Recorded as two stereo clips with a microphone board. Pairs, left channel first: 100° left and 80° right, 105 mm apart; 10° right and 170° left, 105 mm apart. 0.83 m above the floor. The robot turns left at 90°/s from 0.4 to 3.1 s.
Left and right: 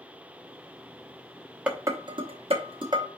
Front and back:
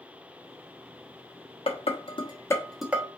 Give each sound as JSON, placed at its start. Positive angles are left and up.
{"t": 1.7, "sound": "dishes clattering", "azimuth_deg": 0, "distance_m": 1.0}